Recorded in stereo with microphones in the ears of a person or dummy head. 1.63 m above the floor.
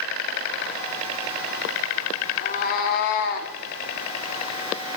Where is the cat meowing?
50° left (ahead or behind), 1.9 m; by 3.5 s 55° left (ahead or behind), 1.6 m.